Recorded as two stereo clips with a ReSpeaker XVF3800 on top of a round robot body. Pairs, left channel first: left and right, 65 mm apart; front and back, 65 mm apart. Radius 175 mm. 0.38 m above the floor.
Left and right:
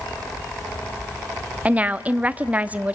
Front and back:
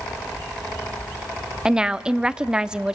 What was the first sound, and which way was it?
A woman speaking, 120° right.